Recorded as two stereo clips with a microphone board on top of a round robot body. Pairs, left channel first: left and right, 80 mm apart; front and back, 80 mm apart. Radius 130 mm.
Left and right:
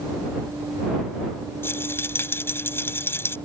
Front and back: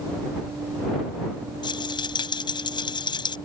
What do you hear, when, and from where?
1.6 s a rattle: 30° left